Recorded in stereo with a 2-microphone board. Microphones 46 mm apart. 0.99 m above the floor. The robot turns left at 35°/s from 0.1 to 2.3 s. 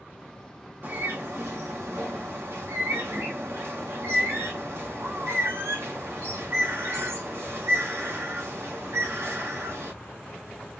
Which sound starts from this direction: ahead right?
A bird, at 0.8 s.